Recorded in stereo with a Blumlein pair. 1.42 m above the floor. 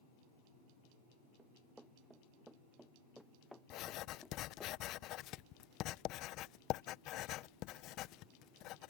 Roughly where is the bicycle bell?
I don't hear a bicycle bell.